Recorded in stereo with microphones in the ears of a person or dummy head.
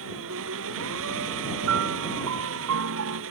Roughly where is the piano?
Right.